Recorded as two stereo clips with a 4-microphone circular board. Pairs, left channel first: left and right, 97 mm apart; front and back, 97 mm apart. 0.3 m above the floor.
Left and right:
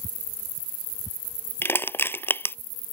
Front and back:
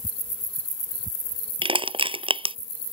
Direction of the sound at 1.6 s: 160° left.